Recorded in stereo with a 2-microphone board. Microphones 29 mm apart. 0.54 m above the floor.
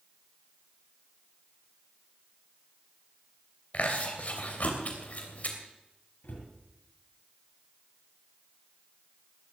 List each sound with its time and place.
3.7 s chewing: 55° left (ahead or behind), 3 m
6.2 s a cupboard door: 85° left, 8 m